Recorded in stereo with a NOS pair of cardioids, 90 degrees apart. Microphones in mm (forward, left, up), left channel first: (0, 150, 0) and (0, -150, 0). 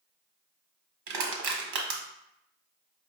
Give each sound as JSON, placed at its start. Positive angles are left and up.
{"t": 1.1, "sound": "crushing", "azimuth_deg": -70, "distance_m": 1.0}